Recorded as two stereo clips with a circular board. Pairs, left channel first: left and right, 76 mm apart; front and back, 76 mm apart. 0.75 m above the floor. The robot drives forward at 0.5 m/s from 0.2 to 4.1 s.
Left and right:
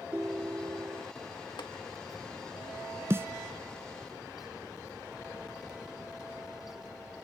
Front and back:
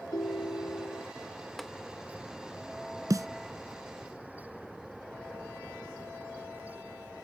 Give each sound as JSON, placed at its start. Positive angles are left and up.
{"t": 0.1, "sound": "a ringtone", "azimuth_deg": -20}
{"t": 1.6, "sound": "tapping", "azimuth_deg": 90}
{"t": 3.1, "sound": "a snare drum", "azimuth_deg": -145}